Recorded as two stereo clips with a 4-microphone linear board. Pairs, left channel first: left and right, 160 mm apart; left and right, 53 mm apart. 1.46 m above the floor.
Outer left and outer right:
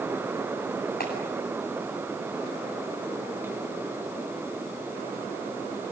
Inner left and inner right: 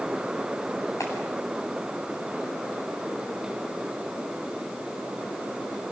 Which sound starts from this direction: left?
A clap, at 1.0 s.